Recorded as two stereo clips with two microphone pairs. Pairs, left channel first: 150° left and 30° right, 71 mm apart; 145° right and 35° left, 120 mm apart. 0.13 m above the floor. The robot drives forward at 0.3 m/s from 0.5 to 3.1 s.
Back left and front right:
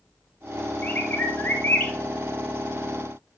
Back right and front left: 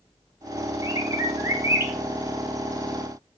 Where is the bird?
90° left, 2.5 m; by 1.9 s 95° left, 2.5 m.